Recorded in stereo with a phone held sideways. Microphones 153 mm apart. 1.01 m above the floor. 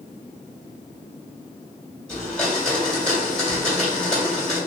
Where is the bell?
I don't hear a bell.